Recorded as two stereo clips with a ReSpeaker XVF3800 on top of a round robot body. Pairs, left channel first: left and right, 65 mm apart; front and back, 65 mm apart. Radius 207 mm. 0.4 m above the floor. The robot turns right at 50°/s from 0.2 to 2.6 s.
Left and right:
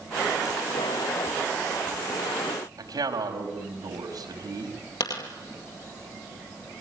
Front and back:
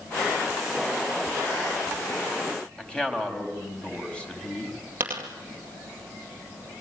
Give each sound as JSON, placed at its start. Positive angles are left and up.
{"t": 2.8, "sound": "a man speaking", "azimuth_deg": -75, "distance_m": 4.5}
{"t": 5.0, "sound": "a dropped coin", "azimuth_deg": 120, "distance_m": 2.0}